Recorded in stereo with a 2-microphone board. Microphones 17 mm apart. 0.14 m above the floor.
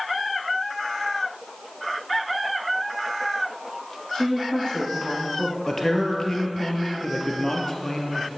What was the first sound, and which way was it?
A woman speaking, 55° left (ahead or behind).